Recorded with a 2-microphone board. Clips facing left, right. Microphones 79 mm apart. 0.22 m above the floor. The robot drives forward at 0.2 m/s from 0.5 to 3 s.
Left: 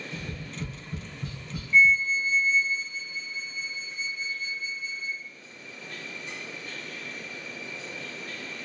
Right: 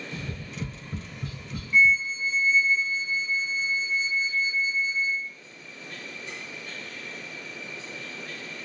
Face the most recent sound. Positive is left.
turn(degrees=-10)  # may be behind; listen again after turning